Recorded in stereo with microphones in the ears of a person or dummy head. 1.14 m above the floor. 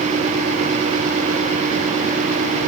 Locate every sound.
Only background noise.